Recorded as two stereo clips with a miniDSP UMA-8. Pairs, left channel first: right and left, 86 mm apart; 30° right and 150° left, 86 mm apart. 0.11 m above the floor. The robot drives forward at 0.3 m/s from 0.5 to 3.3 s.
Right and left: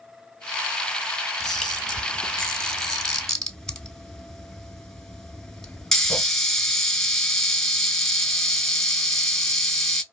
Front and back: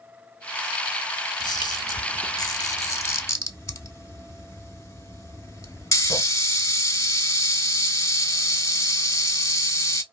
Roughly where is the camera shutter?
Ahead.